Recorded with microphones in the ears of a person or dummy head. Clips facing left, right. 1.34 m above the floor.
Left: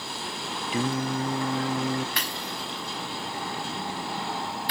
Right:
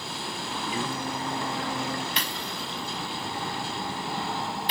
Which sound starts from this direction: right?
Breaking glass, at 2.2 s.